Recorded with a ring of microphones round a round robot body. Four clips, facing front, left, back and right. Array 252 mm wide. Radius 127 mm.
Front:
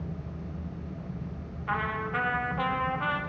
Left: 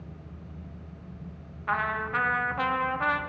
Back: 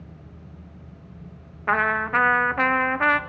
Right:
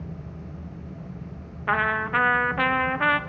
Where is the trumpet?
145° right, 0.7 m.